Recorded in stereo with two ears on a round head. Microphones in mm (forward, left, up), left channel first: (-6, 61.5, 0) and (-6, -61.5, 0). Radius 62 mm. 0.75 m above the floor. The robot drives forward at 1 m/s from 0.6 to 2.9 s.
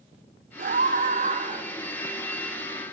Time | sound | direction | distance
0.6 | a scream | 60° right (ahead or behind) | 3 m